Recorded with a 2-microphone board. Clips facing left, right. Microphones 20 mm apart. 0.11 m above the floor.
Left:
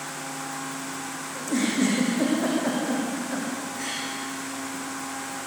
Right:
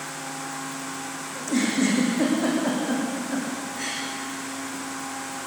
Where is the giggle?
20° right (ahead or behind), 6.5 m.